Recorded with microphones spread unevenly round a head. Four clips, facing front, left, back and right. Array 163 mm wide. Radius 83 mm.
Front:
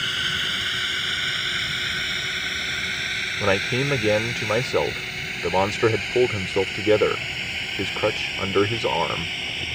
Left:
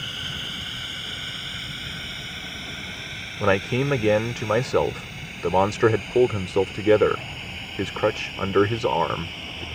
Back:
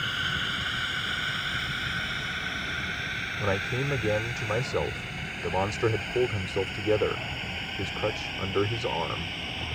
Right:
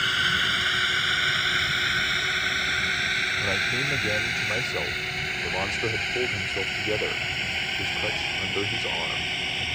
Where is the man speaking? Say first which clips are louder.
Left 13 dB, front 7 dB; 55° left.